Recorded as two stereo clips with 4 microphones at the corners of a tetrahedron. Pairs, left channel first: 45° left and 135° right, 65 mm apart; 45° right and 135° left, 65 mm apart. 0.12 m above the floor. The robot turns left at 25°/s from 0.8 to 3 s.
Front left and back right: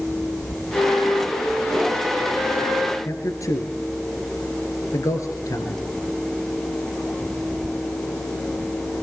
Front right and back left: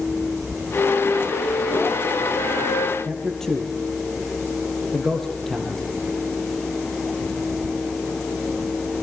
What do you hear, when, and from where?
0.7 s a flute: 5° left, 6.5 m; by 3.0 s 50° right, 6.5 m
3.0 s a man speaking: 35° left, 2.5 m